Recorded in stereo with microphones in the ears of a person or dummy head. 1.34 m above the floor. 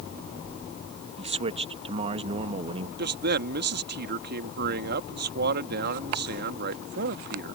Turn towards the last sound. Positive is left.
turn(degrees=-60)  # may be behind; listen again after turning